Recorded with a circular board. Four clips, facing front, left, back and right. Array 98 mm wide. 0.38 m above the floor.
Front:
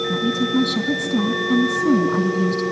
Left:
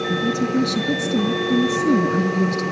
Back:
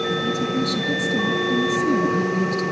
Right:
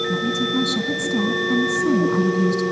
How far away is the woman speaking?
About 5 m.